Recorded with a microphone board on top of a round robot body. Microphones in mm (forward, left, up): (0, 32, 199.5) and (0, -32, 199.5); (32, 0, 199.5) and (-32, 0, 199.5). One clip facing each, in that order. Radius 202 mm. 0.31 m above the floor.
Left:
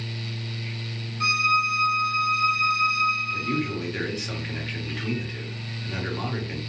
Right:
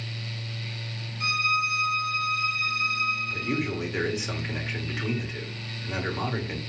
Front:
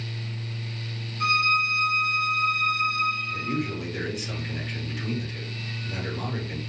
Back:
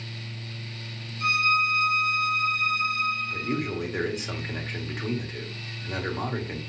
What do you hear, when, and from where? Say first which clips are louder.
1.2 s a violin: left 4 dB, even; 40° left, 1.5 m
3.3 s a man speaking: left 2 dB, even; 165° right, 1.8 m